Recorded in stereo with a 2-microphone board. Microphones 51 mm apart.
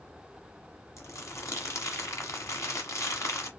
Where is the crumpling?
75° left (ahead or behind), 1.6 m.